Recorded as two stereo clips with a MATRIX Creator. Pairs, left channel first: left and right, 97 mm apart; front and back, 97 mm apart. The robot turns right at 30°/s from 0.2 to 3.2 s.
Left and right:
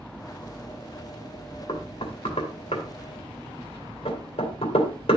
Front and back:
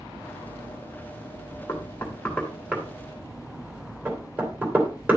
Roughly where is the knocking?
Ahead left.